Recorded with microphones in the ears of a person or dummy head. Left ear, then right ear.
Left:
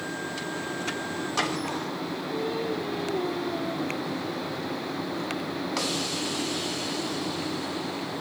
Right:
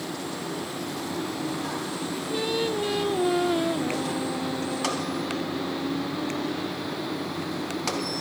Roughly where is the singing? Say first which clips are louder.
Right 4 dB; right.